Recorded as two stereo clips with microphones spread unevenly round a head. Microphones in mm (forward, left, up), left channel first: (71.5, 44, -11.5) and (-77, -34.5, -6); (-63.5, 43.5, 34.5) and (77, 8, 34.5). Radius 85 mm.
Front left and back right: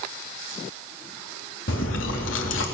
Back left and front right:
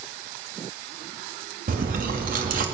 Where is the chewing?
10° left, 3.5 m.